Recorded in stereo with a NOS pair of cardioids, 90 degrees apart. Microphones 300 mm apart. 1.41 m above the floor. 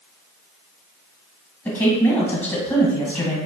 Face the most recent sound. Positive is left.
turn(degrees=5)